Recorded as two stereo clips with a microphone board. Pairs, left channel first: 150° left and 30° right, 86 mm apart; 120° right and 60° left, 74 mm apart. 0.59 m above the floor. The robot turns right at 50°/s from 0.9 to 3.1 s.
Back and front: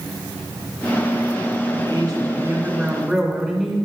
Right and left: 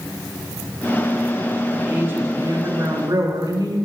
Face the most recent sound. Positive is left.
turn(degrees=55)